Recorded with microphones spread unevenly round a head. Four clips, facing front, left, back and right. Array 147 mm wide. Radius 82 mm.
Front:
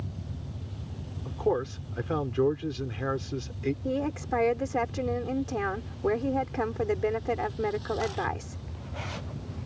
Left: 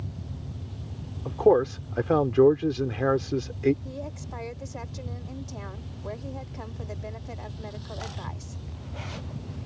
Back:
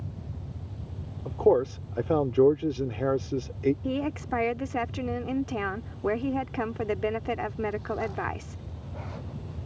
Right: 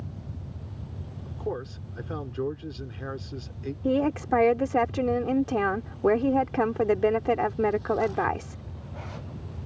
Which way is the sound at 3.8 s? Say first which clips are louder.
Right 14 dB, even; 85° right.